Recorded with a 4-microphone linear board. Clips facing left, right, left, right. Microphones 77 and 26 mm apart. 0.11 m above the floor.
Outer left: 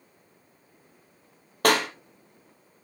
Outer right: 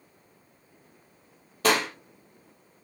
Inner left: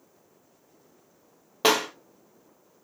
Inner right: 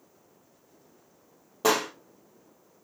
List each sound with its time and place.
1.6 s a clap: 55° left (ahead or behind), 3 m